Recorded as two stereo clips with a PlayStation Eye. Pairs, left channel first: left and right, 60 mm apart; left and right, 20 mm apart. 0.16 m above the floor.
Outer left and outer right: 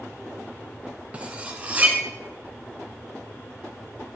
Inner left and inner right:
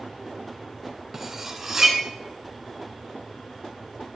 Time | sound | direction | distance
1.1 | cutlery clinking | 20° right (ahead or behind) | 1.2 m